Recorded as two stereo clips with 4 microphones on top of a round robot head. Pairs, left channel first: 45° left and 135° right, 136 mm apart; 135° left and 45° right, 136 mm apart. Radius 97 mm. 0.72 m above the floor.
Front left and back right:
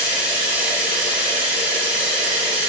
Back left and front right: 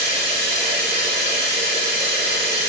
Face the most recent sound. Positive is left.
turn(degrees=-60)